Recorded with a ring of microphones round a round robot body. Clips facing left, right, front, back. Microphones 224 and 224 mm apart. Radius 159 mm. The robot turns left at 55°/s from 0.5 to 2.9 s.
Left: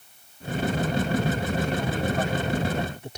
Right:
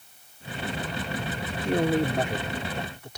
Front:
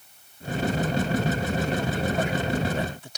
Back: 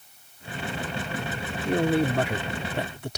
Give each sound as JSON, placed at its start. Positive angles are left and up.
{"t": 1.6, "sound": "a man speaking", "azimuth_deg": -130}